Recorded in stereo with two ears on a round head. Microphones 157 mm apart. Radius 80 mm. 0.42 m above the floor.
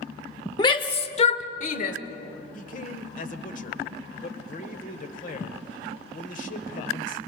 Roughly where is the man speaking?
Left.